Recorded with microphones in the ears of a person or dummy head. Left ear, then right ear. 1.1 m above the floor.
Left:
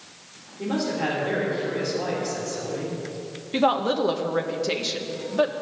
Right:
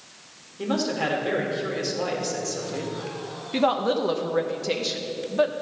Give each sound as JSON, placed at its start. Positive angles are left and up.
{"t": 0.6, "sound": "a man speaking", "side_deg": -65, "distance_m": 3.5}
{"t": 3.5, "sound": "a woman speaking", "side_deg": 0, "distance_m": 0.9}